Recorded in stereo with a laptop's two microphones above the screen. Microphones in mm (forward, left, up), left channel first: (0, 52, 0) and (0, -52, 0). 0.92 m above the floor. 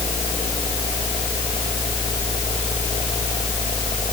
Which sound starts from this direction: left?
A fan, at 0.0 s.